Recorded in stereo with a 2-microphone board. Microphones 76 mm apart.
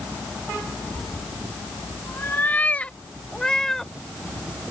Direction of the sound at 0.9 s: 45° left (ahead or behind).